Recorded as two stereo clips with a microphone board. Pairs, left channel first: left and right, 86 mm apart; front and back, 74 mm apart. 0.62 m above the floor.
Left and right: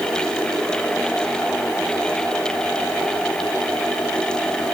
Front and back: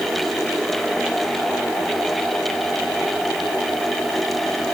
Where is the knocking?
No knocking in this recording.